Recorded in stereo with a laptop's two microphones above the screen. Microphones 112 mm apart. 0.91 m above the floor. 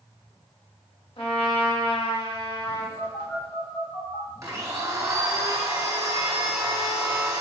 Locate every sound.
1.2 s a trumpet: 55° left (ahead or behind), 0.9 m
3.0 s a phone buzzing: 45° left (ahead or behind), 1.3 m
4.4 s a blender: 30° right (ahead or behind), 0.9 m